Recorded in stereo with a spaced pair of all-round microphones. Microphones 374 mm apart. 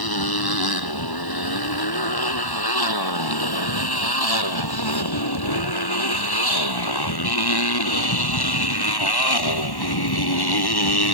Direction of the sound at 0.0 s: 75° left (ahead or behind).